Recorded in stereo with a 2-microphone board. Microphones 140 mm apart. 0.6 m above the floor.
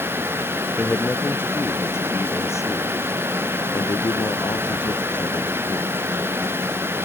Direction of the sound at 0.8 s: 10° left (ahead or behind).